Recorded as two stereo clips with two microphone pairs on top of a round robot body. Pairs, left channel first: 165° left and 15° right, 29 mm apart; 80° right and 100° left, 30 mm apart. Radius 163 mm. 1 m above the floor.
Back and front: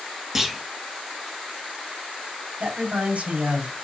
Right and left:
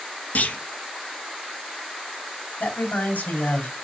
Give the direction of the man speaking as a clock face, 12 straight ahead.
2 o'clock.